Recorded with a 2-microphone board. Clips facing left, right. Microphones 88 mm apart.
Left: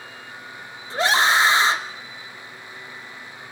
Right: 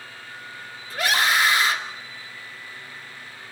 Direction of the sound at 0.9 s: 30° left (ahead or behind).